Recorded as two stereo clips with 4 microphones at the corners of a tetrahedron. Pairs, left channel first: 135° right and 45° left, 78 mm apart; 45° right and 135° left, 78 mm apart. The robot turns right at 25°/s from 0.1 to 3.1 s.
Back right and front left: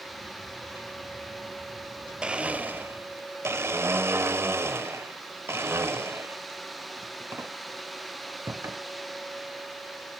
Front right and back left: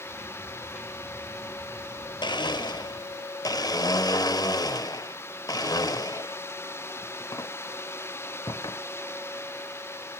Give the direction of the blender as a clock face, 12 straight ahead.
1 o'clock.